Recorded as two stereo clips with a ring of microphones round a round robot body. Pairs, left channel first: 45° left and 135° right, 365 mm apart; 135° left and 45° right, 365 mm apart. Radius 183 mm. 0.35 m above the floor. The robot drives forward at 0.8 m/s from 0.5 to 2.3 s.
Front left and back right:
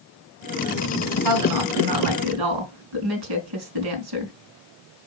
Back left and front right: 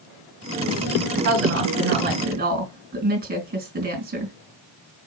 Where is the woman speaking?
95° right, 3.5 m; by 4.3 s 110° right, 3.5 m.